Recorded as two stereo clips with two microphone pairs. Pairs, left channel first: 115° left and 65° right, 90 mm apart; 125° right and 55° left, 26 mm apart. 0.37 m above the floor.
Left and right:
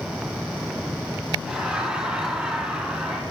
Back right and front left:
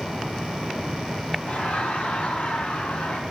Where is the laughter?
140° right, 4 m.